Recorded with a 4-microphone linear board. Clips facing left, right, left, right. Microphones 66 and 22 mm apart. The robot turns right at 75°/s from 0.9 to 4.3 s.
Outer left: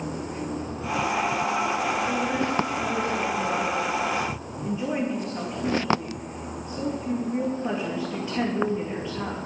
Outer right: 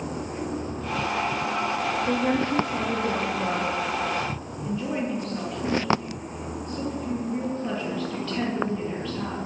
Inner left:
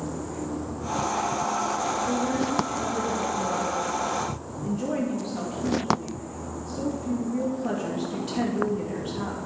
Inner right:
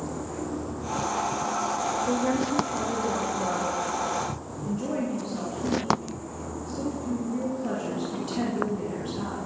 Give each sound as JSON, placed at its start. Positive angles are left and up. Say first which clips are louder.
{"t": 2.1, "sound": "a woman speaking", "louder": "outer right 2 dB, even", "azimuth_deg": -150, "distance_m": 2.5}